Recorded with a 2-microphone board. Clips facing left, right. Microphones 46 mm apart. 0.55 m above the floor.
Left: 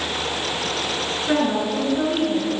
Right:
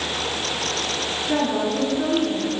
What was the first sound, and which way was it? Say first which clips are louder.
A woman speaking: left 1 dB; 55° left (ahead or behind).